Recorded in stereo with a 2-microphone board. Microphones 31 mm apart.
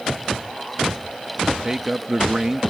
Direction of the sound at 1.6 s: 15° right (ahead or behind).